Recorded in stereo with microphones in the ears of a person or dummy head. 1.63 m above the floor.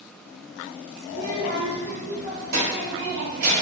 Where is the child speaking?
65° right (ahead or behind), 0.8 m; by 3.5 s 60° right (ahead or behind), 2 m.